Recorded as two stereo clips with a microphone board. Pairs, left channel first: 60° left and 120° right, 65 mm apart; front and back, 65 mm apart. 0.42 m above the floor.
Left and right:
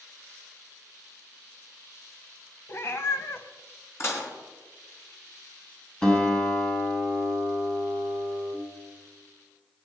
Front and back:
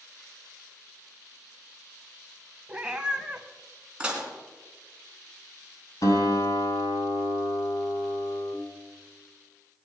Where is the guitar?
15° right, 3 m.